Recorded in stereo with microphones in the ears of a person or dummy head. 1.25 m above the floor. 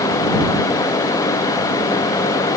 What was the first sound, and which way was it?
Only background noise.